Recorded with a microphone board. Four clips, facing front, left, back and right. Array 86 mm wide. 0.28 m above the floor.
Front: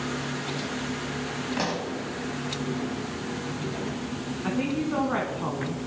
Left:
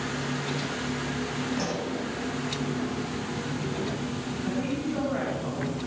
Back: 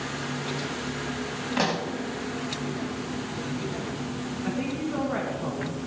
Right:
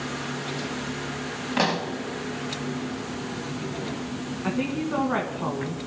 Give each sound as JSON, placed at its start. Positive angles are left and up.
{"t": 1.6, "sound": "a pop", "azimuth_deg": -105, "distance_m": 1.5}
{"t": 4.4, "sound": "a woman speaking", "azimuth_deg": -60, "distance_m": 3.0}